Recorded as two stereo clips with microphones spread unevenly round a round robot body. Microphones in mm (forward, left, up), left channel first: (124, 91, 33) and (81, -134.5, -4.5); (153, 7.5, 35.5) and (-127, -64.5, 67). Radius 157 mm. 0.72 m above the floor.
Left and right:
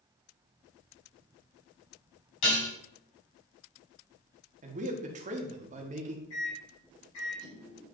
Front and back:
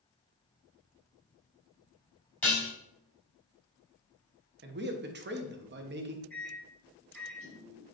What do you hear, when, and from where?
2.4 s dishes clattering: 100° left, 3.5 m
4.6 s a man speaking: 125° right, 1.2 m
6.3 s a microwave: 95° left, 4.5 m